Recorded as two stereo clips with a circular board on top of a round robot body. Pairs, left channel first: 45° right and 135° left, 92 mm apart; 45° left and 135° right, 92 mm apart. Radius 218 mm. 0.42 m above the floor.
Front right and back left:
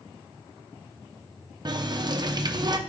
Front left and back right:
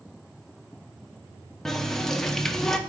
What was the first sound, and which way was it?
A running tap, 130° left.